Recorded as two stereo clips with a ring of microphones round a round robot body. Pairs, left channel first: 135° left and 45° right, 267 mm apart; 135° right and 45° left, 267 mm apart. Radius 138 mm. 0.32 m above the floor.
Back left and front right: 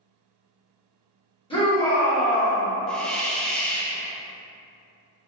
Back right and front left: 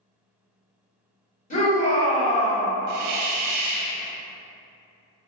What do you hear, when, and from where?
1.5 s a shout: 170° right, 1.6 m
2.9 s a hiss: 50° left, 0.5 m